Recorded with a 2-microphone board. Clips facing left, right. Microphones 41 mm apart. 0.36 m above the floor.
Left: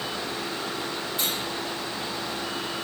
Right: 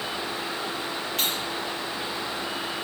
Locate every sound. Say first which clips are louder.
1.2 s cutlery clinking: right 2 dB; 75° right (ahead or behind), 5.5 m